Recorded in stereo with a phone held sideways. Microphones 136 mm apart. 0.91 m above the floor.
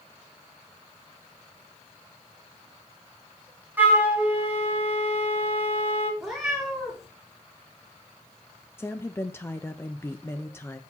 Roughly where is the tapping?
I don't hear tapping.